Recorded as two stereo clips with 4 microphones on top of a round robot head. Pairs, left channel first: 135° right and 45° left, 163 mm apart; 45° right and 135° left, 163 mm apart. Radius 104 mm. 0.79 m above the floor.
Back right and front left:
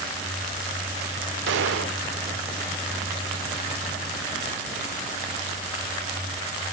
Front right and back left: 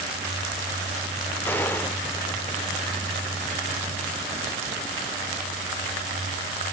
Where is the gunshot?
35° left, 1.0 m.